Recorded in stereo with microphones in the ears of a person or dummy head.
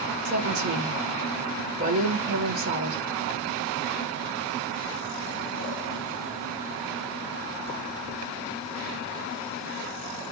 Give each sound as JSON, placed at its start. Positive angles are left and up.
{"t": 0.2, "sound": "a woman speaking", "side_deg": -35, "distance_m": 2.0}